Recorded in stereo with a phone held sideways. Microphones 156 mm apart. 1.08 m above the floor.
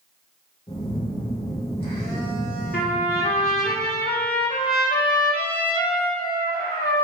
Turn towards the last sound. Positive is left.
turn(degrees=80)